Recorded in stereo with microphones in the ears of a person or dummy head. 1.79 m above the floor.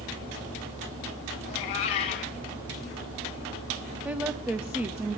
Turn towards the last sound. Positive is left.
turn(degrees=-5)  # may be behind; listen again after turning